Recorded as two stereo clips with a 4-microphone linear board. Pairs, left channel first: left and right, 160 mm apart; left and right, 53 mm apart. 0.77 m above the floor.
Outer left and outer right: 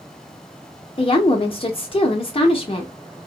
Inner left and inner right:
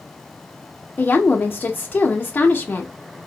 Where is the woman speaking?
35° left (ahead or behind), 0.6 m.